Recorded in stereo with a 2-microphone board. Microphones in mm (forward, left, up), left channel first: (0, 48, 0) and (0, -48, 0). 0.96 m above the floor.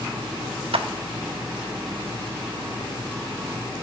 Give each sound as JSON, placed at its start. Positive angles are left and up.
{"t": 0.7, "sound": "a clap", "side_deg": -75, "distance_m": 0.6}